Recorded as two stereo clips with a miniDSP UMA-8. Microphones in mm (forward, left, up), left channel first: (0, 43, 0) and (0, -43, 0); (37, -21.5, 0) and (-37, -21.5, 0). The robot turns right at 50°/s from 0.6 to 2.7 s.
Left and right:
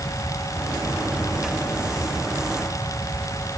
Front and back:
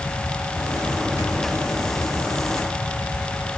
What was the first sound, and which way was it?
Only background noise.